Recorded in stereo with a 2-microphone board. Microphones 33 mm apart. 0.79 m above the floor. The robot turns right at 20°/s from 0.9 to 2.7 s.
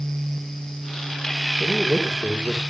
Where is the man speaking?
30° right (ahead or behind), 2 m; by 2.6 s 10° right (ahead or behind), 2 m.